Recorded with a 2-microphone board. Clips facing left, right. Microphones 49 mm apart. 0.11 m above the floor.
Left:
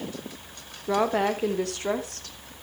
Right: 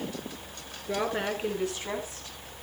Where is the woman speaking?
70° left (ahead or behind), 6 m; by 2.5 s 65° left (ahead or behind), 5 m.